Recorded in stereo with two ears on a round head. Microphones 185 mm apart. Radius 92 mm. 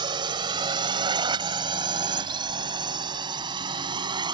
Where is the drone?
25° right (ahead or behind).